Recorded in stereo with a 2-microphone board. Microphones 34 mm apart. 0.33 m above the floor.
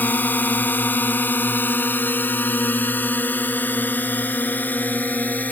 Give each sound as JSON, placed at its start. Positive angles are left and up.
{"t": 0.0, "sound": "a drone", "side_deg": 60}